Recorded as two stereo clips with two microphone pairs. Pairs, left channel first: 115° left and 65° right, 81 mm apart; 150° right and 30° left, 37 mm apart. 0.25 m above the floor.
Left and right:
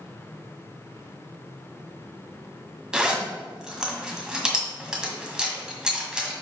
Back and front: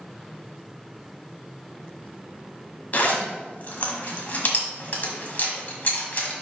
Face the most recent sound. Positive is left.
turn(degrees=-140)